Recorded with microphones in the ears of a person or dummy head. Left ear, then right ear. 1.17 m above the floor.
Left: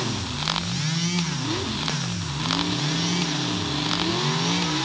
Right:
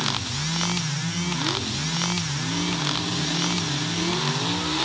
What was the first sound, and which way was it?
Only background noise.